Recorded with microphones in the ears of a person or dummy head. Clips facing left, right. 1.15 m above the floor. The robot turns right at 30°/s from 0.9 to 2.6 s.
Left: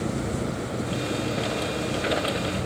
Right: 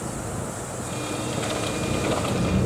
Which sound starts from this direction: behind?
An engine running, at 0.0 s.